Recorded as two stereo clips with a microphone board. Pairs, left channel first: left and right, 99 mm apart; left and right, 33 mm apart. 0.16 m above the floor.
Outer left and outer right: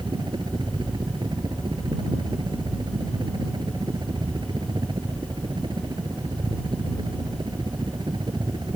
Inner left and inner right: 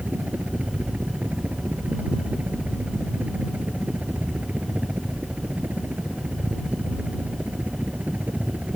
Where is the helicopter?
50° right (ahead or behind).